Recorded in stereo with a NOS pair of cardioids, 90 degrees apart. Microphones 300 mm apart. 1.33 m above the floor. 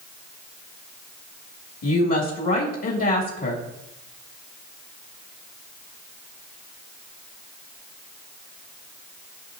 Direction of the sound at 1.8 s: 60° left.